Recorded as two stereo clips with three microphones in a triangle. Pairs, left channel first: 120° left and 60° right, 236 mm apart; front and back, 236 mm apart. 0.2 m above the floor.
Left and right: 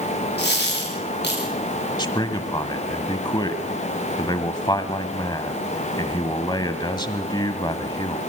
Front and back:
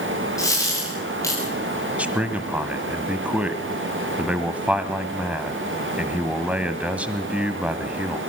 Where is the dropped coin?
75° left, 6.5 m.